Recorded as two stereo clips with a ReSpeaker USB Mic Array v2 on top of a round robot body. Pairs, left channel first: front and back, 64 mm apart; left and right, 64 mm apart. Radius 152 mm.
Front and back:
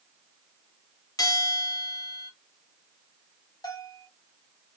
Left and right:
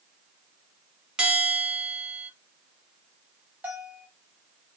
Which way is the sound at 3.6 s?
25° right.